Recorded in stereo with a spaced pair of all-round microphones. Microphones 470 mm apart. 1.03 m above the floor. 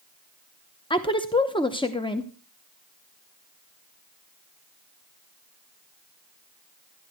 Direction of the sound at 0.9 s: 10° left (ahead or behind).